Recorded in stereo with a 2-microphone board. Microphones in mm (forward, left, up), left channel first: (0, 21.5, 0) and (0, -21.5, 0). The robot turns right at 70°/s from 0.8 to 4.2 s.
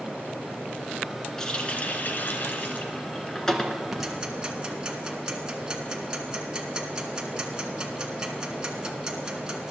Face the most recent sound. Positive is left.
turn(degrees=-20)  # may be behind; listen again after turning